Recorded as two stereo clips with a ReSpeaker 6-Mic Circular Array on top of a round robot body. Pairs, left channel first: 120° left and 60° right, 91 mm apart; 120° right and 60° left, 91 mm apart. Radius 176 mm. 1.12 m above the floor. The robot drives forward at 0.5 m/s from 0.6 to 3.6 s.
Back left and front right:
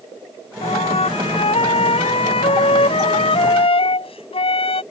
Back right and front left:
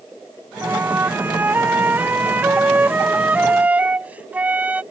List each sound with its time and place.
0.6 s a flute: 130° left; by 4.8 s 135° left